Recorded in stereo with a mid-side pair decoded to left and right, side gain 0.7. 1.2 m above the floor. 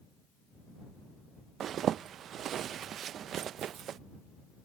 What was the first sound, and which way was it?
A zipper, 45° right.